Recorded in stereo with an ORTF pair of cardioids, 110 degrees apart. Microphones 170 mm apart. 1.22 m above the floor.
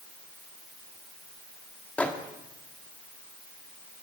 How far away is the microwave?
About 1.8 m.